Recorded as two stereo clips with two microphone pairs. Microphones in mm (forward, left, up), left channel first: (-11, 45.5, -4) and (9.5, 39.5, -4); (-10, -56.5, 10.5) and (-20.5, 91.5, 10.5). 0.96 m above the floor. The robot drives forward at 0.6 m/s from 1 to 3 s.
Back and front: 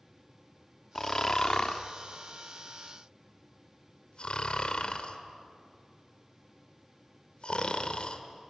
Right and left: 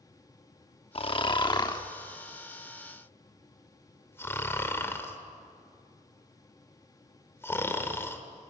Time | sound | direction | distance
0.9 | snoring | 135° right | 1.0 m